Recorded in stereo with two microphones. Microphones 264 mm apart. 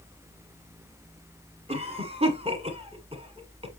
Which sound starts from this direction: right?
A cough, at 1.7 s.